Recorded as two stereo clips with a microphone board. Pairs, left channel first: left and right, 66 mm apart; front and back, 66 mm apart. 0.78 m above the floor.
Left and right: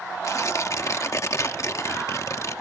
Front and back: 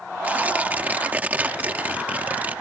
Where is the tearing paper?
120° left.